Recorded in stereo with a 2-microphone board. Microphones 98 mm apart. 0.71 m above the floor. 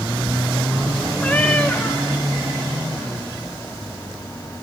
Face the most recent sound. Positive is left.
turn(degrees=15)  # may be behind; listen again after turning